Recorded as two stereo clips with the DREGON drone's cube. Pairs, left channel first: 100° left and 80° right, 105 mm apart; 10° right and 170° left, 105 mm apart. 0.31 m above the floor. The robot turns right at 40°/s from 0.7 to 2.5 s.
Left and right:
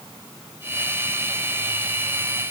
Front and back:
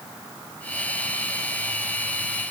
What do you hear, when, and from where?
Only background noise.